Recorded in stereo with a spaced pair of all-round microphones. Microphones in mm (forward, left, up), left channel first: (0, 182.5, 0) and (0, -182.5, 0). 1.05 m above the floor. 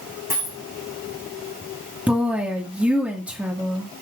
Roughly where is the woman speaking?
Centre.